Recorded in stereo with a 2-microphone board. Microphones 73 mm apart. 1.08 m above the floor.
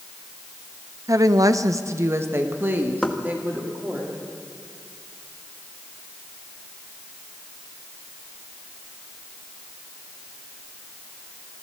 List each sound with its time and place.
1.1 s a woman speaking: 50° right (ahead or behind), 0.8 m; by 4.0 s 20° right (ahead or behind), 3 m
3.0 s knocking: 5° left (ahead or behind), 1.4 m